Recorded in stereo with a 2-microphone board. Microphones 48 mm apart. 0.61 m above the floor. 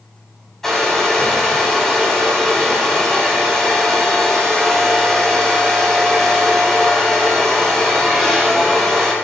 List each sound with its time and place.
0.6 s a hair dryer: 10° left (ahead or behind), 5 m